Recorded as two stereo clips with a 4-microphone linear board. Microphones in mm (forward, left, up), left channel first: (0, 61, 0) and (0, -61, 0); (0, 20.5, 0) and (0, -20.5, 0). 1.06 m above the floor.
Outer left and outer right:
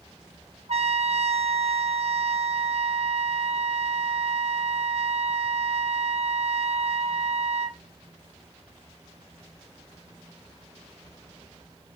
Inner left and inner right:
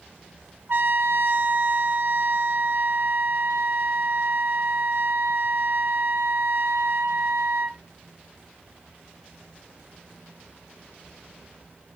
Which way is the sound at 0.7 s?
60° right (ahead or behind).